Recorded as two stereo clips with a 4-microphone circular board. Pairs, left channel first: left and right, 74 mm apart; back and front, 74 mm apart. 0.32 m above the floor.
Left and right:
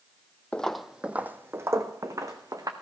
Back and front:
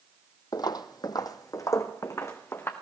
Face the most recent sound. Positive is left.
turn(degrees=-125)